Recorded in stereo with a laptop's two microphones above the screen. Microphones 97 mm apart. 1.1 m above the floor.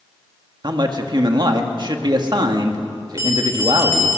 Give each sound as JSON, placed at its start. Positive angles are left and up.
{"t": 0.6, "sound": "a man speaking", "side_deg": -50, "distance_m": 1.5}
{"t": 3.2, "sound": "a bell", "side_deg": -30, "distance_m": 3.0}